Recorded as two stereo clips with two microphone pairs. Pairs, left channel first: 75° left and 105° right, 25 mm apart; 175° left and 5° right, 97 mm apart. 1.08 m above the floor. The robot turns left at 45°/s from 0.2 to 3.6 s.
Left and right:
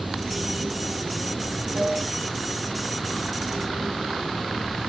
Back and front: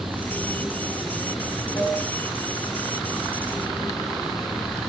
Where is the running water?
70° right, 2 m; by 4.9 s 135° left, 2 m.